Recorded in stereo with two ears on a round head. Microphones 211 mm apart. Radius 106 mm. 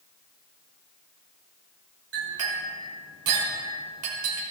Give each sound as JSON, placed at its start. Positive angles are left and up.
{"t": 2.1, "sound": "a clink", "side_deg": -65, "distance_m": 3.5}